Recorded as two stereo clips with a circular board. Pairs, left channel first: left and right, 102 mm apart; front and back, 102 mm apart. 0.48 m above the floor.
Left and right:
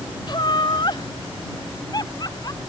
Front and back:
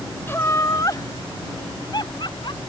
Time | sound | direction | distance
0.3 | laughter | 65° left | ?